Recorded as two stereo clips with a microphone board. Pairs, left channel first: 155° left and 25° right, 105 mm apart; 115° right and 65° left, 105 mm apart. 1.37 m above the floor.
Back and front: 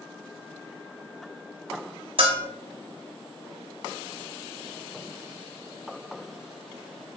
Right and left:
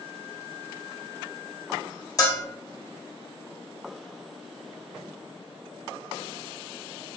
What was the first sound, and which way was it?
A bell, 55° right.